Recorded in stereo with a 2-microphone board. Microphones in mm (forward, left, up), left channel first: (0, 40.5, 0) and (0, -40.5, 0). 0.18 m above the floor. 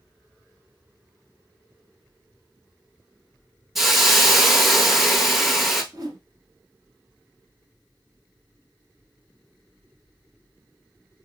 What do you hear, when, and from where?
3.8 s a hiss: centre (ahead or behind), 0.7 m
5.9 s a whoosh: 50° right (ahead or behind), 0.9 m